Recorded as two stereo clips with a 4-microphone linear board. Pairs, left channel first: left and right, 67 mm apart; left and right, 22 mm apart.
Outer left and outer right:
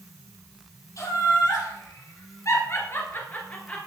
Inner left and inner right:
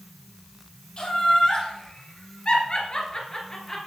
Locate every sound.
1.0 s laughter: 55° left (ahead or behind), 3 m; by 3.8 s 20° left (ahead or behind), 2 m